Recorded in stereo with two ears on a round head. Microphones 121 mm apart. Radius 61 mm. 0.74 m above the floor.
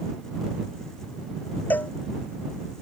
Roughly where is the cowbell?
Centre.